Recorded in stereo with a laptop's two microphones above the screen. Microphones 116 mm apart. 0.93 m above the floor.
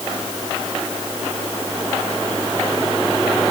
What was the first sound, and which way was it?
Only background noise.